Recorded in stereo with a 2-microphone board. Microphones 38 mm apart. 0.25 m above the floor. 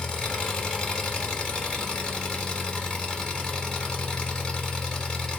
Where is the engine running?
20° left (ahead or behind), 0.8 m.